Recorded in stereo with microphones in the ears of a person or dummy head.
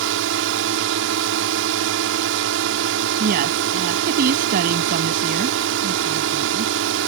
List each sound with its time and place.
0.0 s a drone: 65° right (ahead or behind)
3.2 s a woman speaking: 50° right (ahead or behind)